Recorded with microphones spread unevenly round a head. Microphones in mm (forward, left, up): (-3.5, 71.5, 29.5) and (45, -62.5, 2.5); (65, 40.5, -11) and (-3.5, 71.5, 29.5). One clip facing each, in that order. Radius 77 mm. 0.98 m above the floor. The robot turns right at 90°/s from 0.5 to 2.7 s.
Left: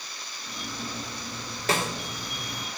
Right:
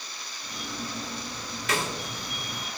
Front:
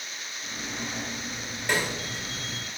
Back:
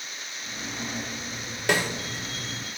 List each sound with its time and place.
1.7 s a snare drum: 170° left, 1.7 m; by 1.9 s 170° right, 1.7 m